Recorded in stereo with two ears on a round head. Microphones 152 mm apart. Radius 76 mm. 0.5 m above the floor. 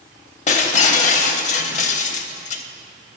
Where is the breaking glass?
45° left (ahead or behind), 0.6 m.